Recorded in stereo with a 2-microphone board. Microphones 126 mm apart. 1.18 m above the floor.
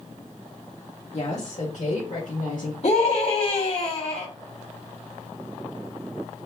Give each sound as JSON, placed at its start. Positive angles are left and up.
{"t": 1.1, "sound": "a woman speaking", "side_deg": 50, "distance_m": 2.0}
{"t": 2.8, "sound": "a scream", "side_deg": 45, "distance_m": 3.0}